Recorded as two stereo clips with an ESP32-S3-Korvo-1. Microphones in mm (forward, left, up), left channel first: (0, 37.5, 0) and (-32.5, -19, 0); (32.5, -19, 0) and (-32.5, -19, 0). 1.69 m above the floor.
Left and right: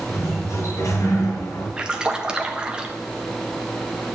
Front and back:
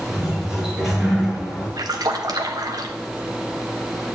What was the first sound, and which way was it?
A sliding door, 95° left.